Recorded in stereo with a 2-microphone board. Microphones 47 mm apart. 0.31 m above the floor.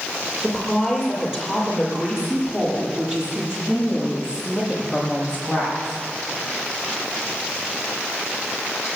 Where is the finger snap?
I don't hear a finger snap.